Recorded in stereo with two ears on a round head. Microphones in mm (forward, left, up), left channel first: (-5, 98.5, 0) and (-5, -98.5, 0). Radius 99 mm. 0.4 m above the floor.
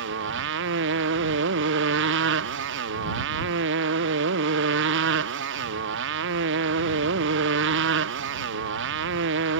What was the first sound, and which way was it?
A motorcycle, 55° right (ahead or behind).